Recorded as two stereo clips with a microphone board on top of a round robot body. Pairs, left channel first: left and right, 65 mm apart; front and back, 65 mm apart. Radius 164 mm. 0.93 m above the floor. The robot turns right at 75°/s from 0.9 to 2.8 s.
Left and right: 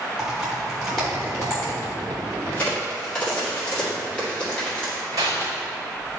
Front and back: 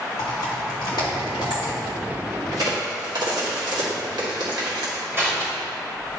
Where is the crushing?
125° right, 2.0 m.